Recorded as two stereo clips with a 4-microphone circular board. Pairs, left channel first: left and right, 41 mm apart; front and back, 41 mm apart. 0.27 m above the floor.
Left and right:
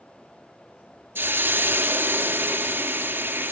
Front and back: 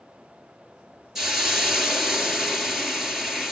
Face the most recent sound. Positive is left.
turn(degrees=-100)